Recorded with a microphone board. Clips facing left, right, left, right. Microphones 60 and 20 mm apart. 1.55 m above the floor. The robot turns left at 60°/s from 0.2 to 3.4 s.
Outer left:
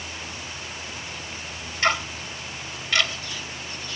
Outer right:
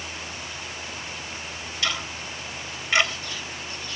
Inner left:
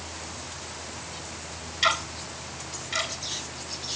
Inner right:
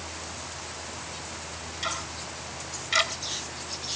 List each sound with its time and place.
1.8 s ticking: 45° left (ahead or behind), 3 m; by 3.1 s 30° right (ahead or behind), 3 m